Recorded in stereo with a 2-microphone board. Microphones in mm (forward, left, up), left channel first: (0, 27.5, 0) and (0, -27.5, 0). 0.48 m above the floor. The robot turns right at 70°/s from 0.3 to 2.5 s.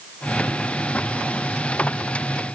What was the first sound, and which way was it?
Only background noise.